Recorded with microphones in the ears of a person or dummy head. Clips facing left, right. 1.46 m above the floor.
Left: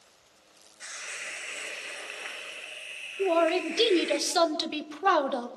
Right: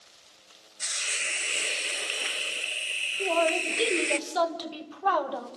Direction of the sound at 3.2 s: 35° left (ahead or behind).